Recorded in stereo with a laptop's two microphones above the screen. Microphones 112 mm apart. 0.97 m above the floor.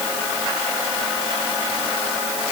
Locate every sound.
Only background noise.